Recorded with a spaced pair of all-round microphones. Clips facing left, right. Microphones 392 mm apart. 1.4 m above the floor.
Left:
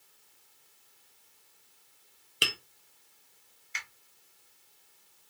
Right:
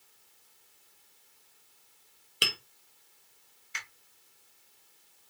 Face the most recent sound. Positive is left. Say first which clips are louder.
# even
turn(degrees=-25)  # may be behind; listen again after turning